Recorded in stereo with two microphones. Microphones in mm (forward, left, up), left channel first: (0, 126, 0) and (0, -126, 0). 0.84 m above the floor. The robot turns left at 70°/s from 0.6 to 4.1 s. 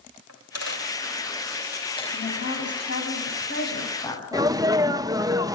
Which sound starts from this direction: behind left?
A woman speaking, at 2.1 s.